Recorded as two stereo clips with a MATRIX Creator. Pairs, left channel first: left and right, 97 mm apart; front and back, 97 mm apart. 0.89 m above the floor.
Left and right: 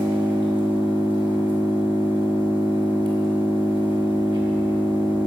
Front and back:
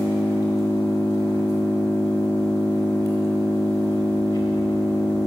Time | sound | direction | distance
0.0 | an engine running | 60° right | 3 m